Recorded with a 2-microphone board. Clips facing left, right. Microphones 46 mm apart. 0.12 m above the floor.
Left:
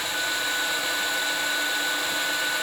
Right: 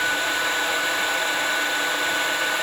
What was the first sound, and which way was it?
Only background noise.